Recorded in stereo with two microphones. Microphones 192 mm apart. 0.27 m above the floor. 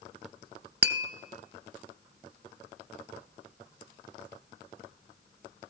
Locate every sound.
0.8 s tapping: 60° right (ahead or behind), 0.6 m